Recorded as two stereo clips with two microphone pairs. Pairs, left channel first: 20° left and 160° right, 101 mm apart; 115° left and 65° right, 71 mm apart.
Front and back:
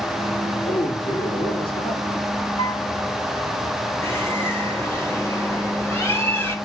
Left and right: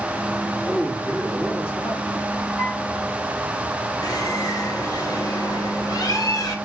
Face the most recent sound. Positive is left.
turn(degrees=90)